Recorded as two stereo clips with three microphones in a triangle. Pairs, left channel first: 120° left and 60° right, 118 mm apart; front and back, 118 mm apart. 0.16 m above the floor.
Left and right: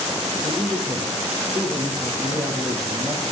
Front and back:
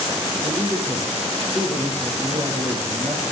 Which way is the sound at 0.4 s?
105° right.